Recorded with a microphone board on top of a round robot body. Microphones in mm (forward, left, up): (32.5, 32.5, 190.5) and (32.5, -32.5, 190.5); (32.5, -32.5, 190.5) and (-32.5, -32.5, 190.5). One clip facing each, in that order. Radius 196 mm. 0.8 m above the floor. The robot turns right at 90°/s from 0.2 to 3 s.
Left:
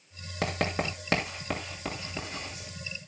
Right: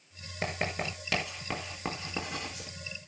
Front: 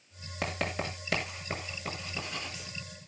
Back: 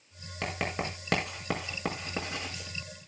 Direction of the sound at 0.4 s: 80° left.